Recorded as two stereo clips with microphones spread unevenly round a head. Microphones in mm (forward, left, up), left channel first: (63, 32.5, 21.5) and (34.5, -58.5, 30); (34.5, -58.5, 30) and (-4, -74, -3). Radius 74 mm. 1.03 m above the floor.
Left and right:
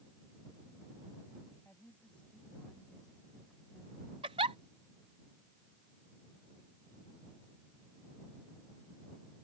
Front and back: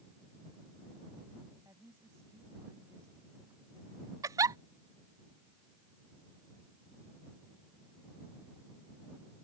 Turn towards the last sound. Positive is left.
turn(degrees=-165)